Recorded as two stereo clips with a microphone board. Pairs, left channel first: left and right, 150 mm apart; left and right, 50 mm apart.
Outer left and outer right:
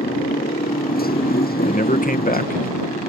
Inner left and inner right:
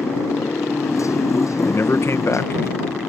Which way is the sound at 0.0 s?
75° left (ahead or behind).